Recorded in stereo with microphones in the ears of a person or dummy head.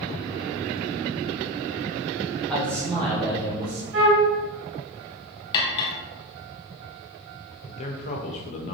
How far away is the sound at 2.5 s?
About 1.5 m.